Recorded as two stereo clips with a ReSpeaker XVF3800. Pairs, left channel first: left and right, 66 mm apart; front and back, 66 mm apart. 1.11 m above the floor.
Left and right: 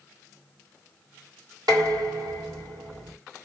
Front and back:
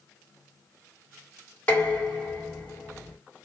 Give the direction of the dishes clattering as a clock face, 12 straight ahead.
2 o'clock.